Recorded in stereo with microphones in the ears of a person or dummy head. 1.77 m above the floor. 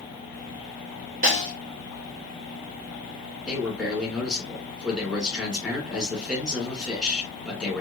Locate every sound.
1.2 s a snare drum: 45° right (ahead or behind), 1.8 m
3.5 s a man speaking: 5° right (ahead or behind), 2.0 m